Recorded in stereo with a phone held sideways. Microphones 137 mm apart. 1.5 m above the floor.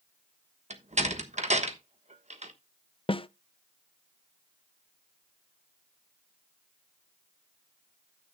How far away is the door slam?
About 1.2 m.